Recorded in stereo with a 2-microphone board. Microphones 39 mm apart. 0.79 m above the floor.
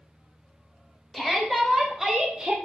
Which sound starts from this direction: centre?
A shout, at 1.1 s.